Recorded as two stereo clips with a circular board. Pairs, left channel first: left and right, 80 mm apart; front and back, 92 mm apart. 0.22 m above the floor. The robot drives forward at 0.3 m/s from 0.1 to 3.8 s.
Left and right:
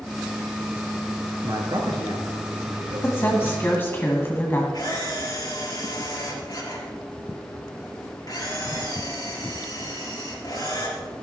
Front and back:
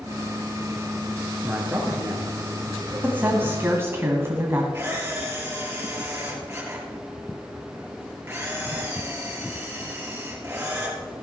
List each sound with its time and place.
1.4 s a man speaking: 105° right, 3.5 m; by 3.6 s 115° right, 3.5 m
3.0 s a woman speaking: 125° left, 1.7 m; by 4.6 s 135° left, 1.8 m
4.7 s a camera shutter: 120° left, 4.5 m